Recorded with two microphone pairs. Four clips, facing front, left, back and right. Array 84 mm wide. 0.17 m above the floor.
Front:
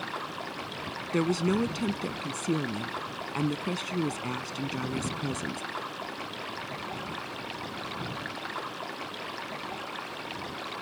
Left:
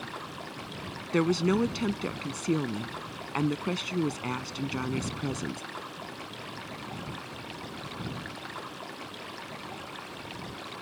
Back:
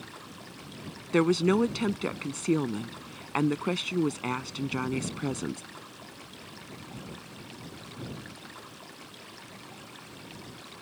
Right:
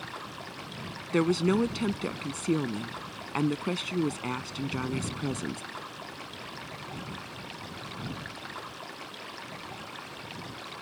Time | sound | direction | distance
0.0 | running water | 5° right | ?
1.1 | a woman speaking | 175° left | ?